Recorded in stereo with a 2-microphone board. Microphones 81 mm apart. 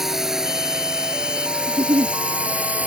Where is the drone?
5° right (ahead or behind); by 2.9 s 20° right (ahead or behind).